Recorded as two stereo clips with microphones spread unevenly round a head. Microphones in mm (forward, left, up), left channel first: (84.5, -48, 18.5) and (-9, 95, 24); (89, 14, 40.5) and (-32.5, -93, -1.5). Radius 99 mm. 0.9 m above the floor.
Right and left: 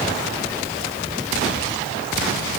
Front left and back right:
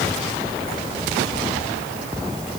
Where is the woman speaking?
No woman speaking in this recording.